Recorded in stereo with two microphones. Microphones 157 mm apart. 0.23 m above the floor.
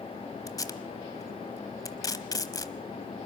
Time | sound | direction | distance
0.5 | tape being pulled | 20° left (ahead or behind) | 1.0 m